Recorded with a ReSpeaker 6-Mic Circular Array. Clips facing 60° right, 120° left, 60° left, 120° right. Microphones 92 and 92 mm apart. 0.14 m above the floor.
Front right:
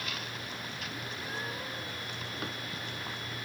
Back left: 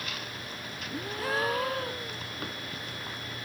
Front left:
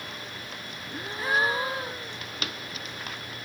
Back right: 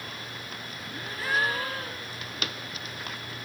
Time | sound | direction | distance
0.9 | a gasp | 130° left | ?